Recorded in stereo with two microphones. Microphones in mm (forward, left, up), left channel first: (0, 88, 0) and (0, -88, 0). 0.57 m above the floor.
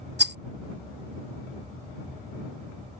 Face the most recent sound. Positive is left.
turn(degrees=-75)  # may be behind; listen again after turning